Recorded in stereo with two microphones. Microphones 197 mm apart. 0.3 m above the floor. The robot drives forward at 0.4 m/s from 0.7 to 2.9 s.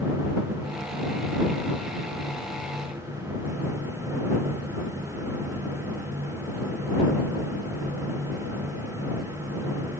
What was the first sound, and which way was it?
Only background noise.